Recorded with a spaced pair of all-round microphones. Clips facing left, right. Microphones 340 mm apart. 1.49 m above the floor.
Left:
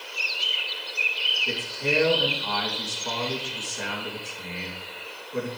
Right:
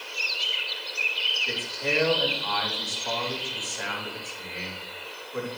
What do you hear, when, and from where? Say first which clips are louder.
1.5 s a man speaking: left 3 dB; 40° left (ahead or behind), 2.5 m